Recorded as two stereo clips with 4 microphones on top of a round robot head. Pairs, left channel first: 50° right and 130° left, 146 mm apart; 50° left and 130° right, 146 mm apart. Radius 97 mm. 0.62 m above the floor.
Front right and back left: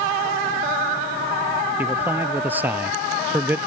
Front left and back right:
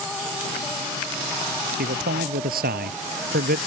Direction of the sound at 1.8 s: 150° right.